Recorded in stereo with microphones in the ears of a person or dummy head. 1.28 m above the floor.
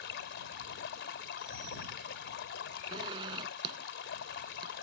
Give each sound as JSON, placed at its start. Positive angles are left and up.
{"t": 0.0, "sound": "running water", "side_deg": 70}
{"t": 2.9, "sound": "a zipper", "side_deg": -25}